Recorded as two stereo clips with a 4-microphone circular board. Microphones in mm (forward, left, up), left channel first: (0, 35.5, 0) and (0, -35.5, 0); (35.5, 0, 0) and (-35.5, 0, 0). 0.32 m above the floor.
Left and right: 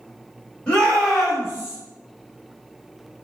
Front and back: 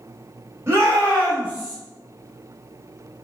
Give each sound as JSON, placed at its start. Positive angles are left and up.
{"t": 0.7, "sound": "a shout", "azimuth_deg": 160, "distance_m": 1.4}